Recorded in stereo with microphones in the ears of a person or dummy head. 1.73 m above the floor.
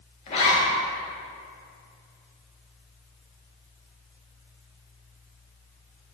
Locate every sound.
0.3 s a zipper: 35° left (ahead or behind), 0.8 m